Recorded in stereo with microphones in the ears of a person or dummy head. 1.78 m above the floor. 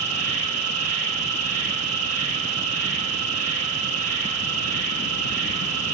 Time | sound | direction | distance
0.0 | an insect | 70° right (ahead or behind) | 1.3 m